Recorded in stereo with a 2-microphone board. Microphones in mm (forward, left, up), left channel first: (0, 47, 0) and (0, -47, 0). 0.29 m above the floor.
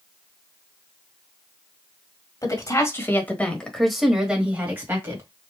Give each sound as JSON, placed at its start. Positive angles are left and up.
{"t": 2.4, "sound": "a woman speaking", "side_deg": 40, "distance_m": 1.4}